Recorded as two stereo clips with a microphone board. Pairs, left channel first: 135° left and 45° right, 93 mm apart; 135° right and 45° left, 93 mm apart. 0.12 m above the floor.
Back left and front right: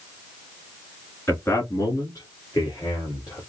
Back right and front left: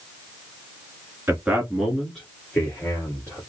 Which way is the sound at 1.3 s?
95° left.